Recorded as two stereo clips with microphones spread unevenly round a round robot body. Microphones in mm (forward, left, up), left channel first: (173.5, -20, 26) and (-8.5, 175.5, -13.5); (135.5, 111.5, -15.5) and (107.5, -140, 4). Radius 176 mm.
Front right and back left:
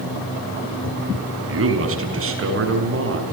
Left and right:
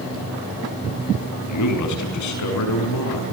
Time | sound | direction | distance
1.5 | a man speaking | 100° left | 6 m